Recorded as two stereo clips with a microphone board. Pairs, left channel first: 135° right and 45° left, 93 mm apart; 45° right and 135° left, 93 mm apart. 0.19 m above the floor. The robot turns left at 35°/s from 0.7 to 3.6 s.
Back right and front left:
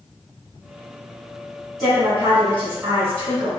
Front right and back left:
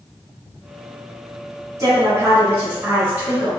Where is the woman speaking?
130° left, 1.5 m; by 3.5 s 70° left, 1.5 m.